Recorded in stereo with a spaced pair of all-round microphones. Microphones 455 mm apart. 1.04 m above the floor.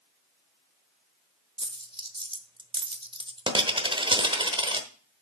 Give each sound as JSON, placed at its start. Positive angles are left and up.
{"t": 1.6, "sound": "a dropped coin", "side_deg": -10, "distance_m": 0.8}